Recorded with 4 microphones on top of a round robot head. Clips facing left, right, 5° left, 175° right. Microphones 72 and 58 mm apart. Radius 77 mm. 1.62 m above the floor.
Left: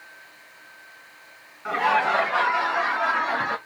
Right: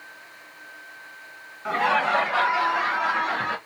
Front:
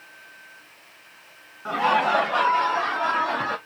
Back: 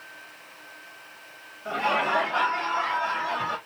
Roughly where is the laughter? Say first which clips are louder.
Left 1 dB, front 4 dB; ahead.